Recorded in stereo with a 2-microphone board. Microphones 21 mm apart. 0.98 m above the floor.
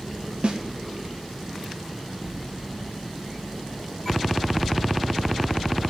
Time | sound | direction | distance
0.4 | a snare drum | 55° right (ahead or behind) | 1.0 m